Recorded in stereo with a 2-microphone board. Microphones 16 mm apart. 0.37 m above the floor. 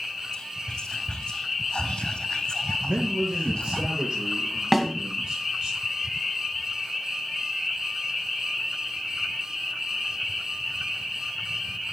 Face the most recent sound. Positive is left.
turn(degrees=-5)  # may be behind; listen again after turning